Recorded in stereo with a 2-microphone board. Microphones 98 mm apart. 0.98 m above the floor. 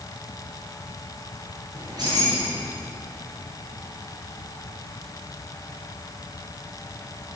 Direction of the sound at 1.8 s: 45° right (ahead or behind).